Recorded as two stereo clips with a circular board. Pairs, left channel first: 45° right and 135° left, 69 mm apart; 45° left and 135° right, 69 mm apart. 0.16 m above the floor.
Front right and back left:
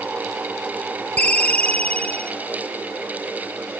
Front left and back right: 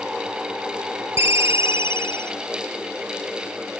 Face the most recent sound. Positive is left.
turn(degrees=-105)